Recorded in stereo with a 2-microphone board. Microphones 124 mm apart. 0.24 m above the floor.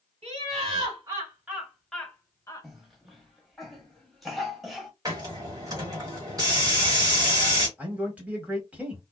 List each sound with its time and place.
0.2 s laughter: 45° right (ahead or behind), 1.5 m; by 2.7 s 30° left (ahead or behind), 1.1 m
2.6 s a cough: centre (ahead or behind), 1.0 m
5.0 s a hiss: 30° right (ahead or behind), 1.3 m
7.8 s a man speaking: 10° right (ahead or behind), 1.3 m